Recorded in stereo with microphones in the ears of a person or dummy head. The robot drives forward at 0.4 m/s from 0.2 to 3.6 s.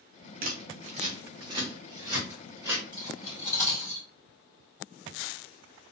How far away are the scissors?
About 0.6 m.